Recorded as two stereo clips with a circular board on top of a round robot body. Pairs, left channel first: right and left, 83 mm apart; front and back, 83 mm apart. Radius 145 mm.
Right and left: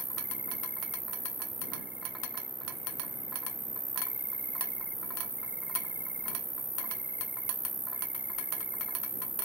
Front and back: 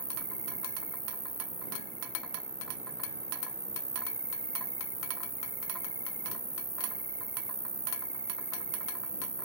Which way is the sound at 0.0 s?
155° left.